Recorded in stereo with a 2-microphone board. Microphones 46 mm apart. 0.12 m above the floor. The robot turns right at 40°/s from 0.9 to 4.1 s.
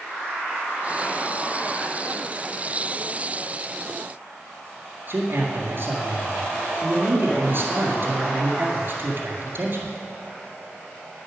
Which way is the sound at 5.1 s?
50° right (ahead or behind).